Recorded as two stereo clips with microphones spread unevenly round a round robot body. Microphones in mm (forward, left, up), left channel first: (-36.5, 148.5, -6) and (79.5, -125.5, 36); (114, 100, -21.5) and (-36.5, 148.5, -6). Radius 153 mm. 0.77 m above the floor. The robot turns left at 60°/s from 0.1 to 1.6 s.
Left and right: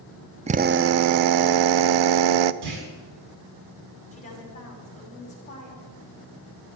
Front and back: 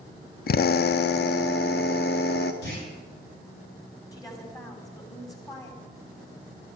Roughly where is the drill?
Ahead.